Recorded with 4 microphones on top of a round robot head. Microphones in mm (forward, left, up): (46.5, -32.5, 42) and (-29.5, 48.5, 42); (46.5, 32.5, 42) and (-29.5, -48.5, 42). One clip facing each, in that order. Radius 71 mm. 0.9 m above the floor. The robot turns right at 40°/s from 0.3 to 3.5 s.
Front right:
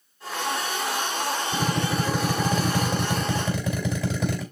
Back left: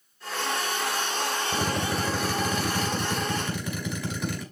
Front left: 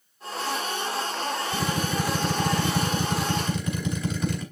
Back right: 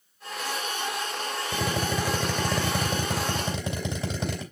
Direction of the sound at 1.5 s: 150° right.